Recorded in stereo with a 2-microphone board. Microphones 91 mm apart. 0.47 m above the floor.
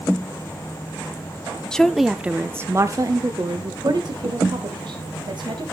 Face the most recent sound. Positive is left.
turn(degrees=-60)  # may be behind; listen again after turning